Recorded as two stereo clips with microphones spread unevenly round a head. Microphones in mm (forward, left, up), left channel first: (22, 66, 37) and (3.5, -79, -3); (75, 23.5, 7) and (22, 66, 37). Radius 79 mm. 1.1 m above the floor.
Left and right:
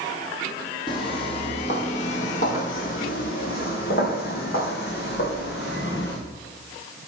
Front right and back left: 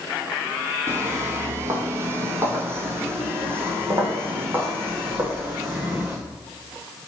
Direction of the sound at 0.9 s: 125° left.